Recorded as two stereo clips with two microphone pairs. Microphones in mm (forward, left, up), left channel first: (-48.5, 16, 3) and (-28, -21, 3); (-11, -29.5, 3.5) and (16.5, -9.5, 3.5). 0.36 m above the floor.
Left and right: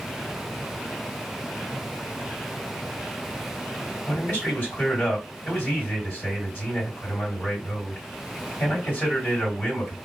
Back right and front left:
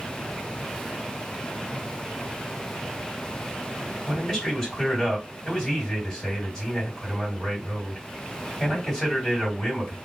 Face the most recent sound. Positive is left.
turn(degrees=135)